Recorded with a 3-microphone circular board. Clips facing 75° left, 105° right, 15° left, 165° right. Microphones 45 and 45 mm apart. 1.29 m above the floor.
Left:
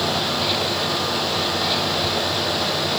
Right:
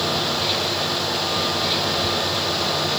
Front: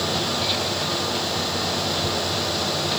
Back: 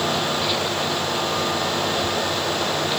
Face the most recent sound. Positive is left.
No sound to turn to.